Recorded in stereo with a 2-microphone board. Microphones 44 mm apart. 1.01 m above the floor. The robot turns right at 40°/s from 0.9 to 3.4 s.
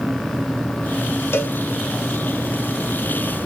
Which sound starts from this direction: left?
A cowbell, at 1.3 s.